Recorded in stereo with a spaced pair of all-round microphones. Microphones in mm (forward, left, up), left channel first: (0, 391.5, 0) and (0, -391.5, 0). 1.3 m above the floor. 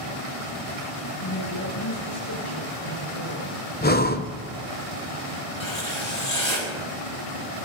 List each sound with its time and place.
1.2 s a woman speaking: 25° left (ahead or behind), 6 m
3.8 s breathing: 15° left (ahead or behind), 0.6 m
5.6 s writing: 30° right (ahead or behind), 5.5 m